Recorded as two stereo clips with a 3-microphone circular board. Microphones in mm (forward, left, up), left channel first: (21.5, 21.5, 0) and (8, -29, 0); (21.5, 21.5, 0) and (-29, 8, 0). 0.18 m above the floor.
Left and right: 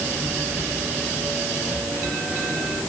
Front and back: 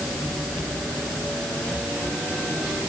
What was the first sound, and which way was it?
Only background noise.